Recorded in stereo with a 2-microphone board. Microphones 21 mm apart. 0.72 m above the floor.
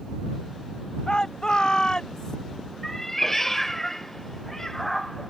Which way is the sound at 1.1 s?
40° left (ahead or behind).